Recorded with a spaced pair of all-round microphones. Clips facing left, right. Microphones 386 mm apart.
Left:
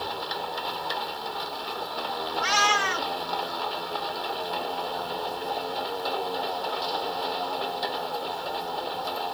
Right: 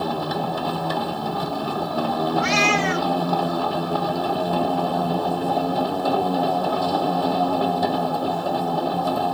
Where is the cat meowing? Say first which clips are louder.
Right 9 dB; 35° right (ahead or behind).